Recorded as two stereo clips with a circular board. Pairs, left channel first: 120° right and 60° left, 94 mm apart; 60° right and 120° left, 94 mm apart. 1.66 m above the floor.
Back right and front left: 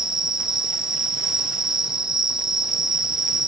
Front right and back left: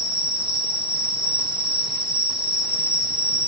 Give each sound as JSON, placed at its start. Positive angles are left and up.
{"t": 0.0, "sound": "an insect", "azimuth_deg": 145, "distance_m": 1.5}